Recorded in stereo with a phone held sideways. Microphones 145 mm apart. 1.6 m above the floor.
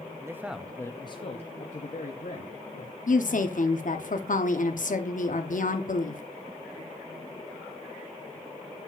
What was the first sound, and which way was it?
A man speaking, 25° right (ahead or behind).